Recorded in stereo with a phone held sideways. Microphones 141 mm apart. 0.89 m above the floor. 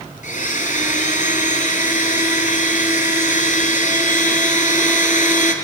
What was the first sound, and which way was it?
A blender, 65° left (ahead or behind).